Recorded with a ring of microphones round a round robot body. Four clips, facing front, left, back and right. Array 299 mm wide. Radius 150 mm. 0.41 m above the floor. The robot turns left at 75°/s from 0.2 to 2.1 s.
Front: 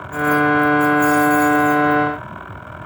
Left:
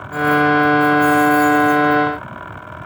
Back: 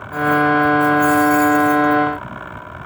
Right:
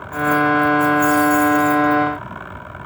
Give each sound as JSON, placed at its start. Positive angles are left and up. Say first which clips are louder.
{"t": 0.1, "sound": "keys jangling", "louder": "left 2 dB, back 1 dB", "azimuth_deg": -15, "distance_m": 3.0}